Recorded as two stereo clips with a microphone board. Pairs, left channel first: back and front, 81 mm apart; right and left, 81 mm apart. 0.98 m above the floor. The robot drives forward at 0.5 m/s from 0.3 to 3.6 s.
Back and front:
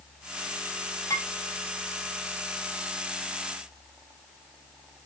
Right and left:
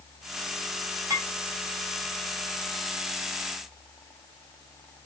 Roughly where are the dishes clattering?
Behind left.